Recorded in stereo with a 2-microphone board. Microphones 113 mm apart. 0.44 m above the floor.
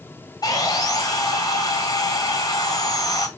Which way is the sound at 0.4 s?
35° left (ahead or behind).